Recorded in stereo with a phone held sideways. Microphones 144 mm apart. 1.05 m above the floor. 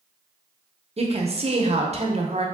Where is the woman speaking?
45° right (ahead or behind), 0.6 m.